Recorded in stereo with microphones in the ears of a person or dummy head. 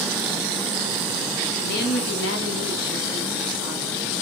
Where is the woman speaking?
50° left (ahead or behind), 0.9 m; by 4.0 s 20° left (ahead or behind), 1.4 m.